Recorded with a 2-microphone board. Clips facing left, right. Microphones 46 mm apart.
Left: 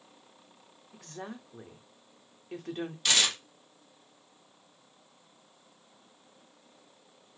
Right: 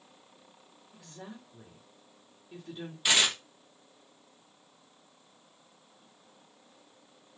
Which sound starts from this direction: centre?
Tearing paper, at 3.0 s.